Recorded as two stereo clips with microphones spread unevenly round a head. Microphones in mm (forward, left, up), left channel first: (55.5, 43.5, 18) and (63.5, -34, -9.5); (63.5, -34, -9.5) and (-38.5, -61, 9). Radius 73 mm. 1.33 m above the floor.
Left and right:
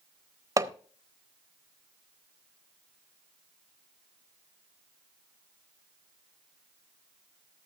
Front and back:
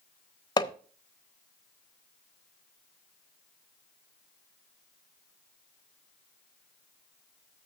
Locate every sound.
0.6 s hammering: 35° right, 0.8 m